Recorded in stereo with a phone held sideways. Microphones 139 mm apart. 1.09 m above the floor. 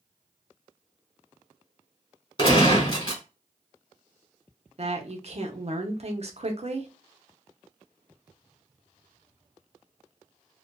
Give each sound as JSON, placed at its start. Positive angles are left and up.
{"t": 2.4, "sound": "a gunshot", "side_deg": 35, "distance_m": 1.3}
{"t": 4.8, "sound": "a woman speaking", "side_deg": -50, "distance_m": 0.8}